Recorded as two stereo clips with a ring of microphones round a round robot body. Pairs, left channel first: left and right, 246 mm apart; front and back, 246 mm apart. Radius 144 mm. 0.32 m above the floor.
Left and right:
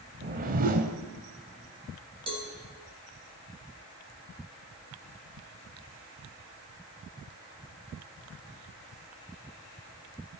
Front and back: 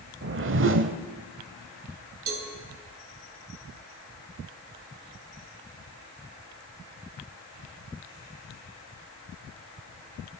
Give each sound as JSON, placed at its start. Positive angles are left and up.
{"t": 0.2, "sound": "a whoosh", "azimuth_deg": -145, "distance_m": 0.9}
{"t": 2.3, "sound": "a cowbell", "azimuth_deg": -160, "distance_m": 3.0}